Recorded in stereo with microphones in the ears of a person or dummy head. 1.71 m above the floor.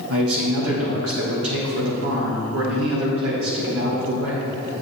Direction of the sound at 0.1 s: 75° right (ahead or behind).